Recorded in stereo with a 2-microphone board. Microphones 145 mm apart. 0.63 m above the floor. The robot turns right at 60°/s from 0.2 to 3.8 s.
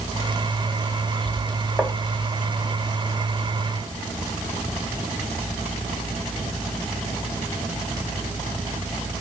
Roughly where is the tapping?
Centre.